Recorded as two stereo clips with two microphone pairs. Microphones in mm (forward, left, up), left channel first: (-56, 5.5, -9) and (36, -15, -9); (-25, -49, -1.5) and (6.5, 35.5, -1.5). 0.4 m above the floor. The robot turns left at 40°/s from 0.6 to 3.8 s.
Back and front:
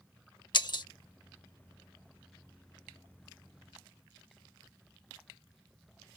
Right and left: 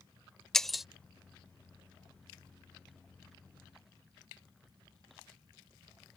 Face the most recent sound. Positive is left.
turn(degrees=35)